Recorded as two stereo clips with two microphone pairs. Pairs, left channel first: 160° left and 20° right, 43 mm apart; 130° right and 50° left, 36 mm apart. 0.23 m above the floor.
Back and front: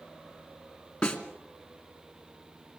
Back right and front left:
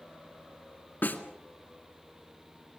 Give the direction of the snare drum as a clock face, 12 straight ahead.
4 o'clock.